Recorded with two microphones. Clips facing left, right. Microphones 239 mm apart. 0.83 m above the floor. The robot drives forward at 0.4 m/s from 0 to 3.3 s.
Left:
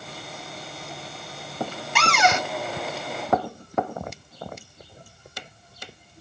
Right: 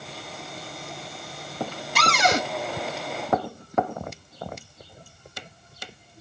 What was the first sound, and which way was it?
A cupboard door, 35° right (ahead or behind).